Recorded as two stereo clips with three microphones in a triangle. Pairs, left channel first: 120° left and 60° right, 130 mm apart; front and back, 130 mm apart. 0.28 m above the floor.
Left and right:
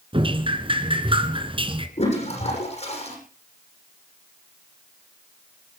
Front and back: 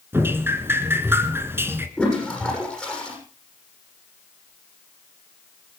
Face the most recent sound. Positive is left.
turn(degrees=85)